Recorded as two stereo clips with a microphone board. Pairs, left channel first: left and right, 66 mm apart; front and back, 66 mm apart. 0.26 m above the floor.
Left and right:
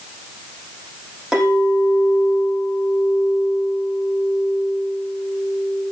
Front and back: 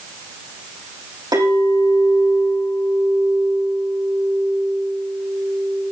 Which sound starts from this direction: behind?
A clink, at 1.3 s.